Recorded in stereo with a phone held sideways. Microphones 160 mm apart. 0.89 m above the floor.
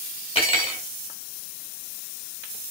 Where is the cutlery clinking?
40° left (ahead or behind), 1.4 m.